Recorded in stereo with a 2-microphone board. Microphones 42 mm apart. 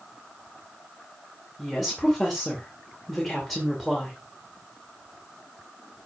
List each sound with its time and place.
1.6 s a woman speaking: 5° left (ahead or behind), 2.5 m